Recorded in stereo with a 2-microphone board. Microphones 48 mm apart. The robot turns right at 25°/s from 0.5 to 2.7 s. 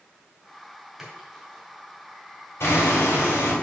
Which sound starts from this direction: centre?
A splash, at 1.0 s.